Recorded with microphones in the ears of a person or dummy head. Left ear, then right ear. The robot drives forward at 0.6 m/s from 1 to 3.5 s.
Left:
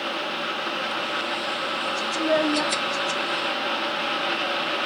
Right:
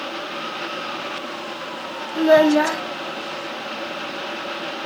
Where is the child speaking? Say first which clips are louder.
Right 9 dB; 80° right; by 2.8 s 65° right (ahead or behind).